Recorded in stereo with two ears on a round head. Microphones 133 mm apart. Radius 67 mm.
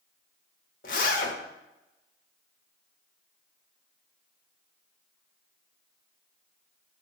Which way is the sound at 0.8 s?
65° left (ahead or behind).